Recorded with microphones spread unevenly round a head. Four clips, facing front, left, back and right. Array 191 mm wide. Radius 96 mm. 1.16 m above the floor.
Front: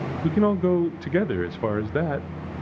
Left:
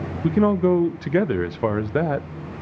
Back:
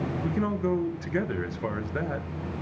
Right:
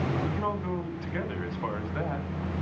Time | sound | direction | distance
0.2 | a man speaking | 70° left | 0.6 m